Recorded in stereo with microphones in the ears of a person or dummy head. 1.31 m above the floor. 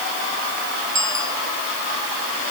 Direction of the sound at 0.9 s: 15° right (ahead or behind).